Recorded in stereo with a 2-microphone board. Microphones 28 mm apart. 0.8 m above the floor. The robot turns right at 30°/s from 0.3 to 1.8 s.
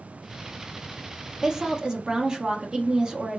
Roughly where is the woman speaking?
Centre.